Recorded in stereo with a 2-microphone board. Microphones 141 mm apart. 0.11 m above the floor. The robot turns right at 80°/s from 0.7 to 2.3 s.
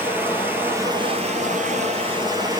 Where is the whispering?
No whispering in this recording.